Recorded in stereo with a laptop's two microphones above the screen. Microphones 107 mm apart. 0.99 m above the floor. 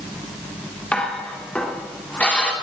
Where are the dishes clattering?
10° left (ahead or behind), 1.9 m.